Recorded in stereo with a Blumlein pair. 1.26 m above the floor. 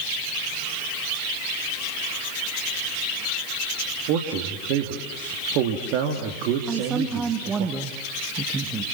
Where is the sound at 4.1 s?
40° right, 2.5 m.